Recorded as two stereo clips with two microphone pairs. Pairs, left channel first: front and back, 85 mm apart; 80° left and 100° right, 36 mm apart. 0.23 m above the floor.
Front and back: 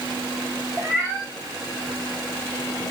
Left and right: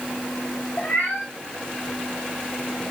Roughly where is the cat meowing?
Behind left.